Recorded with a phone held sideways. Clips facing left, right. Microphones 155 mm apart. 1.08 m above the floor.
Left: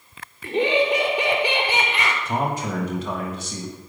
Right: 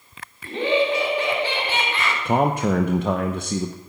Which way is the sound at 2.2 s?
60° right (ahead or behind).